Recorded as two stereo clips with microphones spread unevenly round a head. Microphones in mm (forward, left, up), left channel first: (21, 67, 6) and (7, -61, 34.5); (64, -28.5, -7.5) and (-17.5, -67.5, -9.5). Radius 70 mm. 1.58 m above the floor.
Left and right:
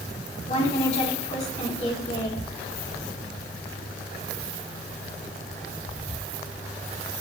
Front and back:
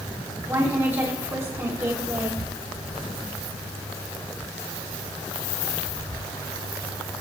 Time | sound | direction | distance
0.5 | a woman speaking | 130° left | 5.5 m